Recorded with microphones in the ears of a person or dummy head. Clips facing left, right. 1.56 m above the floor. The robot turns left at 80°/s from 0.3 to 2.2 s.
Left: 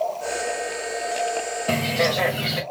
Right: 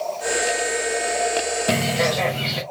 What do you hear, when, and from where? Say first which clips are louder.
1.7 s a bird: even; 160° right, 0.9 m; by 2.6 s 160° left, 0.9 m